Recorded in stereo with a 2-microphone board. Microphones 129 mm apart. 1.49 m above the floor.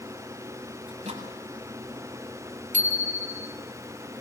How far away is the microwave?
About 7.5 m.